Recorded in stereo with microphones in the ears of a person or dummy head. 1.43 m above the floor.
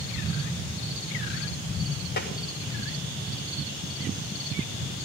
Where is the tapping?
60° left (ahead or behind), 1.7 m.